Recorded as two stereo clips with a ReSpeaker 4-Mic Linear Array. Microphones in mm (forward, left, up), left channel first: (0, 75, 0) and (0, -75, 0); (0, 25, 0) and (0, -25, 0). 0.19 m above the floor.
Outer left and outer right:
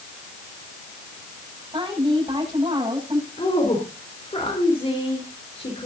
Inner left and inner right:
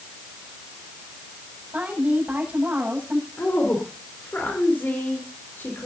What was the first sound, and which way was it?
A woman speaking, 30° right (ahead or behind).